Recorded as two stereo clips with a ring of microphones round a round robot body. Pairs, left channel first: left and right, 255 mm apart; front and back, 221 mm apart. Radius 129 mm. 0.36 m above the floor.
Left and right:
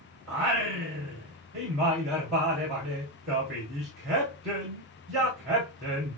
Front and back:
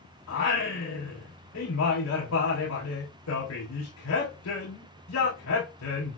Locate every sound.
0.3 s singing: straight ahead, 5.5 m